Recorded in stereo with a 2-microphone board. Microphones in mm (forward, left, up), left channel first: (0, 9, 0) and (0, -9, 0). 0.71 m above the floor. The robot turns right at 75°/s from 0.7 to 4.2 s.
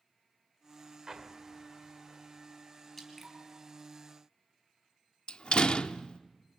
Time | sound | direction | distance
1.1 | an explosion | 25° right (ahead or behind) | 2.5 m
3.0 | dripping | 5° left (ahead or behind) | 4 m
5.3 | a door slam | 55° left (ahead or behind) | 0.8 m